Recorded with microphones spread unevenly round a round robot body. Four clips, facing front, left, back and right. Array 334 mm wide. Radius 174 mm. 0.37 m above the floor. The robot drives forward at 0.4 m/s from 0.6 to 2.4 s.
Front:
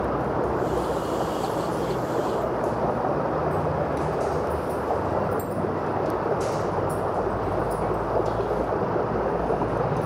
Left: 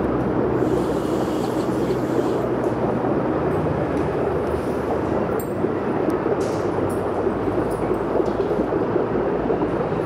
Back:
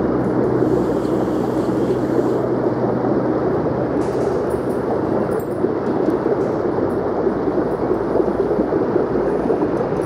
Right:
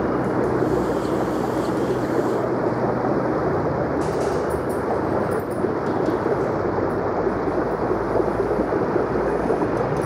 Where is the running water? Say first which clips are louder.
Even, back 7 dB; 170° left.